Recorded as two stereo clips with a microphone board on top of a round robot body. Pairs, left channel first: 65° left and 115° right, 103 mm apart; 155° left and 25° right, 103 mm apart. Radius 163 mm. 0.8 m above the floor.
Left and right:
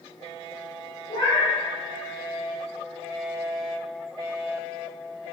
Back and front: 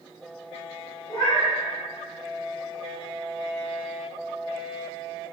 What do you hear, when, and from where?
1.1 s a cat meowing: 100° left, 1.1 m